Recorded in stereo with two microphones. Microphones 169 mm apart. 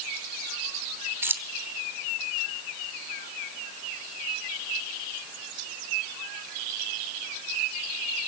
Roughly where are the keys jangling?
Centre.